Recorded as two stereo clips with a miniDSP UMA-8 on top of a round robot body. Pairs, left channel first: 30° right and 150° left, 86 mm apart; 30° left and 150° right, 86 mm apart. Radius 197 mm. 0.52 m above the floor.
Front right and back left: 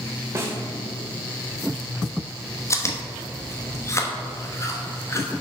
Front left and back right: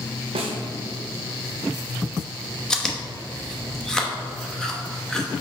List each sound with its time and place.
0.3 s a snare drum: 150° right, 0.6 m
2.7 s chewing: 50° right, 1.2 m